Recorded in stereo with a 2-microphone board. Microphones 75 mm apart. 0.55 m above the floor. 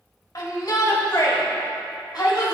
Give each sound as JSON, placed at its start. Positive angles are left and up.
{"t": 0.3, "sound": "a shout", "side_deg": 55, "distance_m": 2.0}